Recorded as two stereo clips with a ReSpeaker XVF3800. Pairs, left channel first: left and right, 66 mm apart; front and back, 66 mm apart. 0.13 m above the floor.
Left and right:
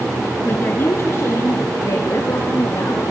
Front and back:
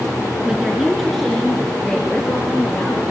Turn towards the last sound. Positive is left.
turn(degrees=80)